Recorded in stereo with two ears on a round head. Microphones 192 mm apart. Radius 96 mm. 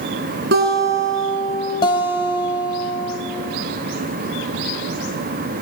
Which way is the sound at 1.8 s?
25° left (ahead or behind).